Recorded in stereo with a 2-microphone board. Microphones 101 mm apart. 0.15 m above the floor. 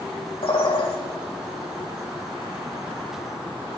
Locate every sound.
0.4 s a bird: 60° left (ahead or behind), 4.5 m